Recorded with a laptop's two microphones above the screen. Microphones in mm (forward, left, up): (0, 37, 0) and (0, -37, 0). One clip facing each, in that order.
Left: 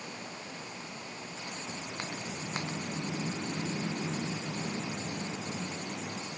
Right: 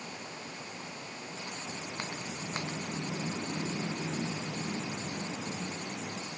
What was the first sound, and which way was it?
Only background noise.